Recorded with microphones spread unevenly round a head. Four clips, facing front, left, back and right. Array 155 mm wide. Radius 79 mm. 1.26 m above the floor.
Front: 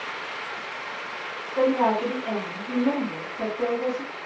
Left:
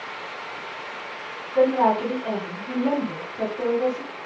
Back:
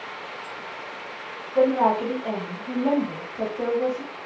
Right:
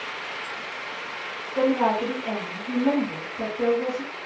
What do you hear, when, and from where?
1.6 s a woman speaking: 145° left, 1.2 m